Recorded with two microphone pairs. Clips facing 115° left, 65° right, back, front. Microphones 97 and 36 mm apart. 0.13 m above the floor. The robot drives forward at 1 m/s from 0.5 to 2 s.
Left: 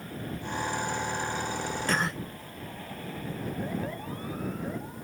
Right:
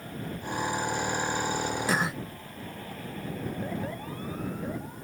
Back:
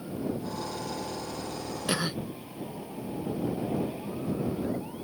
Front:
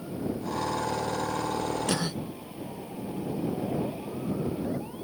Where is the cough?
130° right; by 2.2 s 140° right.